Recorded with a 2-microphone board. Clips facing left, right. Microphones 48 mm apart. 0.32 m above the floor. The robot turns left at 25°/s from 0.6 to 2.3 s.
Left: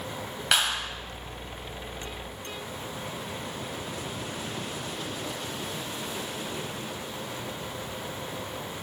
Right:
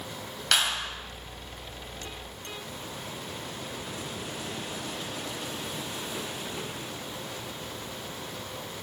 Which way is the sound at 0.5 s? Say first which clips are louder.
Left 1 dB; 15° left (ahead or behind).